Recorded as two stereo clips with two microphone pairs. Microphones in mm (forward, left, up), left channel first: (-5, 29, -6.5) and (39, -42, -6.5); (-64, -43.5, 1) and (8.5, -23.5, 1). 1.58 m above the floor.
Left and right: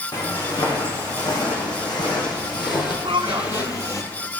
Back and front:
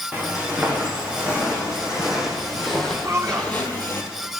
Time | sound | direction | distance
0.1 | footsteps | 85° left | 6.5 m
3.0 | a man speaking | 40° right | 1.4 m